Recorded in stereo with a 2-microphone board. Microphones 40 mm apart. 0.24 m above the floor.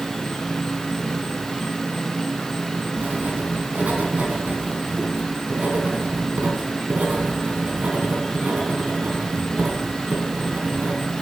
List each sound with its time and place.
0.0 s an insect: centre (ahead or behind), 3 m
3.0 s writing: 45° right (ahead or behind), 3 m